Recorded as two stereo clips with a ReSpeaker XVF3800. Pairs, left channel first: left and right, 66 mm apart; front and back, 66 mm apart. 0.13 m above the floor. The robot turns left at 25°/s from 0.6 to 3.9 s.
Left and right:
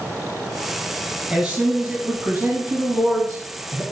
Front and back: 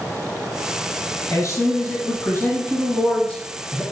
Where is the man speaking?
5° right, 1.6 m; by 3.8 s 65° right, 1.6 m.